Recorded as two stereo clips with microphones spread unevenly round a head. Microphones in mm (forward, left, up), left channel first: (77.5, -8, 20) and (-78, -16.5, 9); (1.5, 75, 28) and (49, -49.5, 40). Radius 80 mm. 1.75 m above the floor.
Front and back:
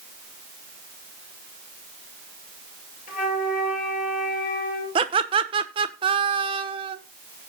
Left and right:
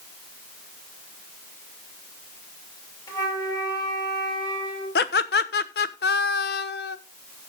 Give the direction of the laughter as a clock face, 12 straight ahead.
8 o'clock.